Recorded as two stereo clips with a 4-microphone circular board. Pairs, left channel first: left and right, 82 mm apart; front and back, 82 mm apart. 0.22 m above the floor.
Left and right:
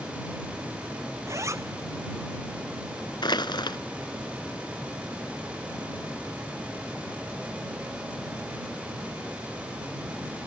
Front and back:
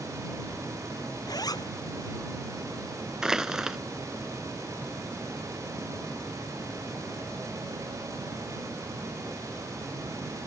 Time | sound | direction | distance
1.3 | a zipper | 40° right | ?
3.2 | crushing | 100° left | ?